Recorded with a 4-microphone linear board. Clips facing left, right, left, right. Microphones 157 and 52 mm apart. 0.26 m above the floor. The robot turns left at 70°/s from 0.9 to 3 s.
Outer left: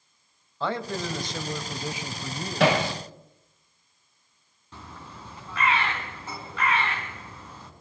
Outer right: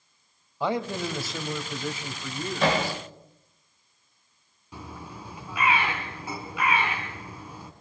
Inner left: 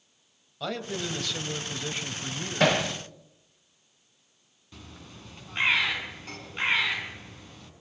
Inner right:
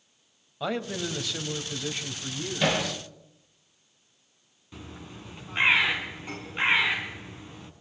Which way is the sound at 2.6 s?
75° left (ahead or behind).